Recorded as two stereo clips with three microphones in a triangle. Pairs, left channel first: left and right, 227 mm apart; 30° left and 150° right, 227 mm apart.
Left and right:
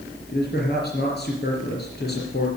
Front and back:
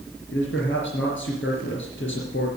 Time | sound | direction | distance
0.3 | a man speaking | 55° left | 4 m